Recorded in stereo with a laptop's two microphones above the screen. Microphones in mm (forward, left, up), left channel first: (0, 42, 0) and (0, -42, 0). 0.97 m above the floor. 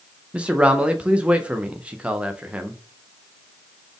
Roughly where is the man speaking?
Centre.